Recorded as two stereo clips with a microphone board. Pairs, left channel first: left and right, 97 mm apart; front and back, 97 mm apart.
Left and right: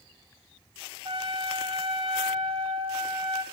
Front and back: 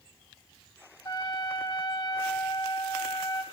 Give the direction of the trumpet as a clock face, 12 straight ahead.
2 o'clock.